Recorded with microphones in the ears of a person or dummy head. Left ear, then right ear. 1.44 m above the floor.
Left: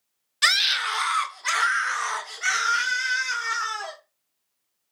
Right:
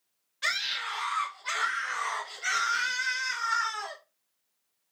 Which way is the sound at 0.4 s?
55° left (ahead or behind).